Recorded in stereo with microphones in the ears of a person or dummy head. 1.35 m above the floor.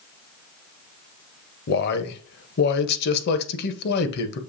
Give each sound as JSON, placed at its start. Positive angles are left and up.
{"t": 1.7, "sound": "a man speaking", "side_deg": 65, "distance_m": 0.8}